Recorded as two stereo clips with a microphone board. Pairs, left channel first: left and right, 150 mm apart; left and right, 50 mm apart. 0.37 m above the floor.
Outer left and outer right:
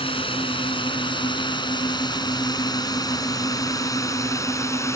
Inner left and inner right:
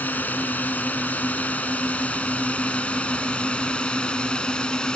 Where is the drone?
35° left (ahead or behind); by 5.0 s 20° left (ahead or behind).